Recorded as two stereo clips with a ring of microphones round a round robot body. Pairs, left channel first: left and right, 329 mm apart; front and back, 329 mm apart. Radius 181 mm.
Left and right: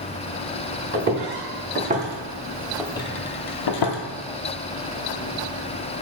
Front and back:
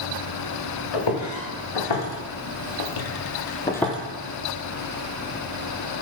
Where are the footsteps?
30° right, 2 m; by 4.0 s 95° left, 0.8 m.